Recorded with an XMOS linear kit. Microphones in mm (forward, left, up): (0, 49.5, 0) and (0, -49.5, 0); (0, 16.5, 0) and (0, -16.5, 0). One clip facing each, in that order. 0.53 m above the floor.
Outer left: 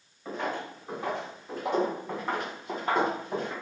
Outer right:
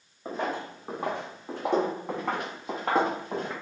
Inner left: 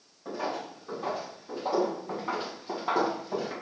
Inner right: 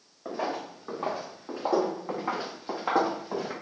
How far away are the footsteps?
About 1.5 m.